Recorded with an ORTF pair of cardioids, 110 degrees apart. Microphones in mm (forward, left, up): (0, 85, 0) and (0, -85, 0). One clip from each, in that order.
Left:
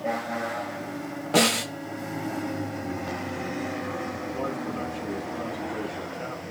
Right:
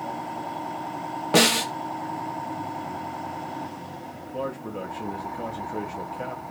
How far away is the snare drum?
About 1.1 m.